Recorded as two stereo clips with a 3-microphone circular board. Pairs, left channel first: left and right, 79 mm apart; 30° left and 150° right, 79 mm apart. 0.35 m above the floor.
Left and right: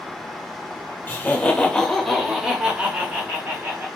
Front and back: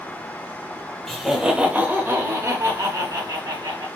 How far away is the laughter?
About 0.9 m.